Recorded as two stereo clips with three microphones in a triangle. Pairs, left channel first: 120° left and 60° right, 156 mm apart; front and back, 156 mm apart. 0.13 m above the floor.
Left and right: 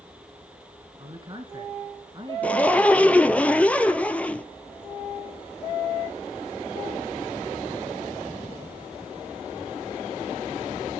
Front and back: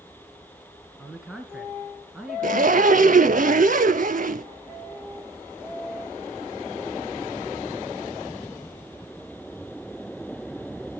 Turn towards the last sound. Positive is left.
turn(degrees=-160)